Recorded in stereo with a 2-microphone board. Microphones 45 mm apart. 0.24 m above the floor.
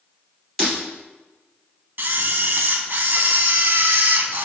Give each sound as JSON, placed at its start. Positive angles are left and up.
{"t": 0.6, "sound": "breaking glass", "side_deg": 0, "distance_m": 2.0}
{"t": 2.0, "sound": "a camera shutter", "side_deg": -50, "distance_m": 0.6}